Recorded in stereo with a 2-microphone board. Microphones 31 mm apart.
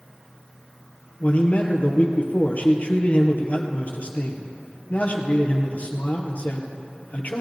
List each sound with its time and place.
1.2 s a man speaking: 55° left (ahead or behind), 2.0 m